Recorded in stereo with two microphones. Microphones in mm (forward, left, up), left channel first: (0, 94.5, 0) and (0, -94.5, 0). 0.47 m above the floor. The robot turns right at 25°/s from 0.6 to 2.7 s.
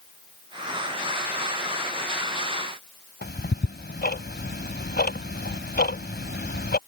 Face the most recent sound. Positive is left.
turn(degrees=60)  # may be behind; listen again after turning